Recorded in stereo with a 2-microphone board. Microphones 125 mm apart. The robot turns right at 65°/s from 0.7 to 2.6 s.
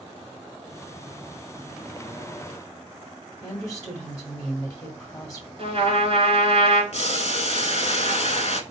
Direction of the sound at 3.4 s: 30° left (ahead or behind).